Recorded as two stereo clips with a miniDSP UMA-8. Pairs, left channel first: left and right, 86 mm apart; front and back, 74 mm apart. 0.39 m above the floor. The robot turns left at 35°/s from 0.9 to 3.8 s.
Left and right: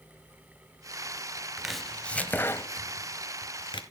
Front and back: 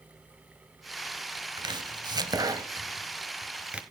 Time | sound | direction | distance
1.6 | chopping | 175° right | 0.8 m